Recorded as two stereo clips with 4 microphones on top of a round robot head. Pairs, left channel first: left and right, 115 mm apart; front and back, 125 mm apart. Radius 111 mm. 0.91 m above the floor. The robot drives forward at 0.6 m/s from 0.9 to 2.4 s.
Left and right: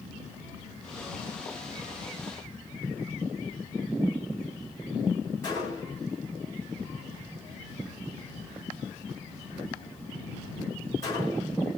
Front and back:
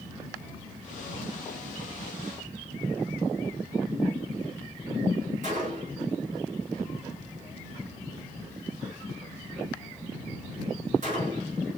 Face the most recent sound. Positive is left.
turn(degrees=160)